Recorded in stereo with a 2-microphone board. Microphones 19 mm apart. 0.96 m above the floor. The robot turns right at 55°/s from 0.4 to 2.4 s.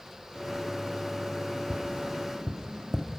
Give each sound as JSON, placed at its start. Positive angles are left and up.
{"t": 1.7, "sound": "tapping", "side_deg": -70, "distance_m": 1.1}